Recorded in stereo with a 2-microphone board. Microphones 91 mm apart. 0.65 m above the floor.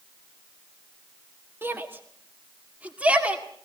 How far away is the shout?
About 1.5 m.